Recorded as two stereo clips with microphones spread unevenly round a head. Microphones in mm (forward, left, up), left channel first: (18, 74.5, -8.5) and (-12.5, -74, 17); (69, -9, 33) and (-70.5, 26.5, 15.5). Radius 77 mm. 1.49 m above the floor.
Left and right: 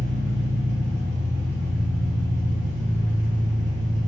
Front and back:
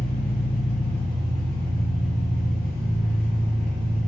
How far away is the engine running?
About 0.7 m.